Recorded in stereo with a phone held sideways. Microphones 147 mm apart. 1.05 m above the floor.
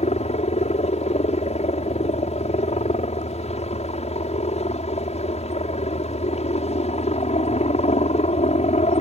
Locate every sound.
0.0 s a helicopter: 45° left (ahead or behind)